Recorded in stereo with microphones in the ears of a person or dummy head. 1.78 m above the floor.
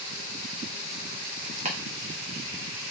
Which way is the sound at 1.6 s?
35° right (ahead or behind).